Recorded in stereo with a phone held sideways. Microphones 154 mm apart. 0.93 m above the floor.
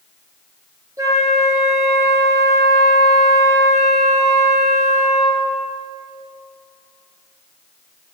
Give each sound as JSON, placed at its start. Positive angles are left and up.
{"t": 1.0, "sound": "a flute", "side_deg": -20, "distance_m": 3.0}